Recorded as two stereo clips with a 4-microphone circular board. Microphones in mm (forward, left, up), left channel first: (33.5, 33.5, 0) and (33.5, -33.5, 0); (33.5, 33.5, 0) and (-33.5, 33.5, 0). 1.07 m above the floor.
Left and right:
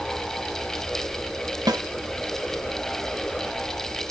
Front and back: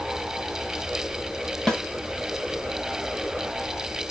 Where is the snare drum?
80° right, 1.5 m.